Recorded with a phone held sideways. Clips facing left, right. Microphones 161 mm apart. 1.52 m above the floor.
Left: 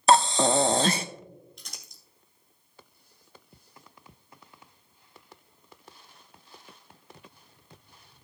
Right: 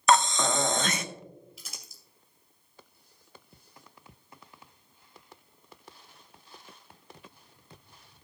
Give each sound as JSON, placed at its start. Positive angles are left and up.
{"t": 0.1, "sound": "breathing", "side_deg": 30, "distance_m": 0.5}
{"t": 1.6, "sound": "crumpling", "side_deg": -5, "distance_m": 2.0}